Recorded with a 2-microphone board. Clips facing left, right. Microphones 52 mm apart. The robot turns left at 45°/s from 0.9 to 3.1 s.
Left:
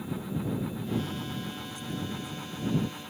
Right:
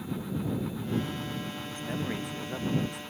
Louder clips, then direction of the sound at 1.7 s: Right 5 dB; 40° right.